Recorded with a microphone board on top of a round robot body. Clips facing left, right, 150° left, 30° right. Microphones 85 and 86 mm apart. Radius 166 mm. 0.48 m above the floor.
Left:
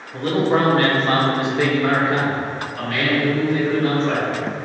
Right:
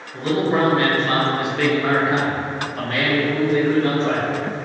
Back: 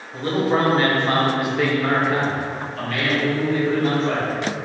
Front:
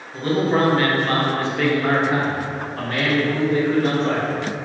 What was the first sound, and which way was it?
A man speaking, 100° left.